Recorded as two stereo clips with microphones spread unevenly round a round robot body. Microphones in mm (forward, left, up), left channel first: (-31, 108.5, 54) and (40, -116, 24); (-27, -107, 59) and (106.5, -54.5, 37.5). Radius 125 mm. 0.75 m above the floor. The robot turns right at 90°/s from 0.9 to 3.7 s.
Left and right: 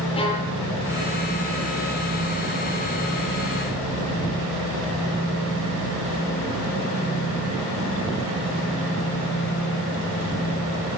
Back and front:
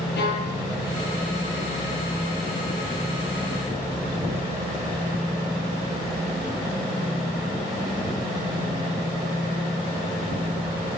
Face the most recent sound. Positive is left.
turn(degrees=70)